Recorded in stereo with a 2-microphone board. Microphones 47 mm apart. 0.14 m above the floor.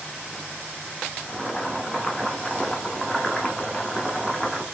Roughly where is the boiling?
Centre.